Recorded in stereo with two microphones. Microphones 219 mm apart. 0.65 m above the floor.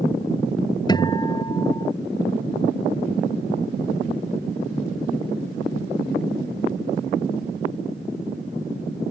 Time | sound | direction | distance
0.9 | a guitar | 20° left (ahead or behind) | ?